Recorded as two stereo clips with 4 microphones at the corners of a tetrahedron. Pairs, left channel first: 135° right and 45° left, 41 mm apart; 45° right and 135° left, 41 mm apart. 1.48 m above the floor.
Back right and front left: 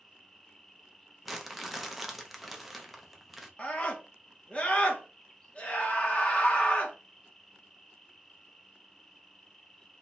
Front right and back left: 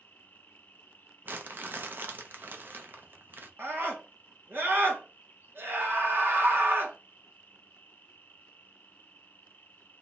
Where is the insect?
60° right, 1.8 m.